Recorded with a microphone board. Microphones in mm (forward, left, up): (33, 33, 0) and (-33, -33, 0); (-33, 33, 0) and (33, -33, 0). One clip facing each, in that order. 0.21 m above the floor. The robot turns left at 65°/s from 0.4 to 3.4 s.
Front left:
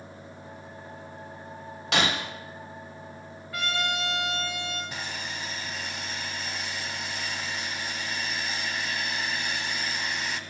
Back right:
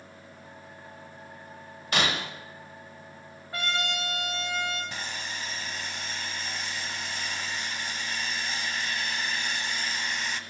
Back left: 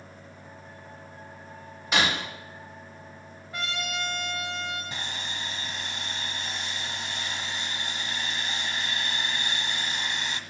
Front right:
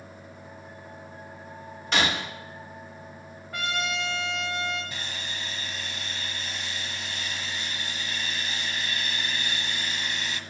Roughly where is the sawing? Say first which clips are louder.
Front left 1 dB, back left 1 dB; behind left.